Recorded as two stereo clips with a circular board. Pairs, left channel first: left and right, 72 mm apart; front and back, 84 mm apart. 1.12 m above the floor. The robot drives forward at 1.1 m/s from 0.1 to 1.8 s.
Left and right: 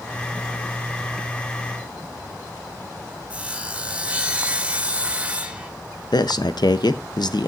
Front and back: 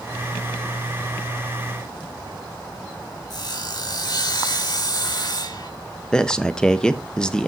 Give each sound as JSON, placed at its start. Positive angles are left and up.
{"t": 3.3, "sound": "sawing", "azimuth_deg": -20, "distance_m": 1.4}
{"t": 6.1, "sound": "a man speaking", "azimuth_deg": 80, "distance_m": 0.9}